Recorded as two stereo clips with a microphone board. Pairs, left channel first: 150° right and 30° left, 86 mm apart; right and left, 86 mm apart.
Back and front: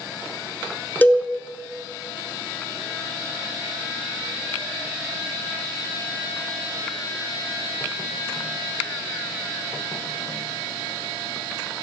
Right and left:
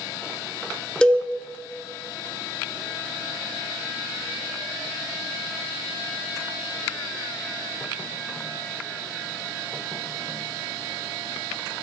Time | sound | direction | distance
1.0 | a cowbell | 150° right | 0.6 m